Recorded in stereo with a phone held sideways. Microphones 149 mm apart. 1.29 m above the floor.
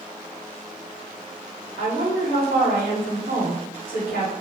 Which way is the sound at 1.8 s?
75° left (ahead or behind).